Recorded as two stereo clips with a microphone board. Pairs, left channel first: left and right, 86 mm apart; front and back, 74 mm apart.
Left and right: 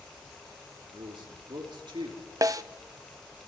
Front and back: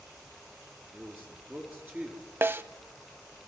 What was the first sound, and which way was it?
A man speaking, 115° right.